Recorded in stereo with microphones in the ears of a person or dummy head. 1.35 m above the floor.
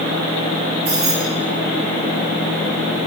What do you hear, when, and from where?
0.8 s keys jangling: 50° right (ahead or behind), 3.5 m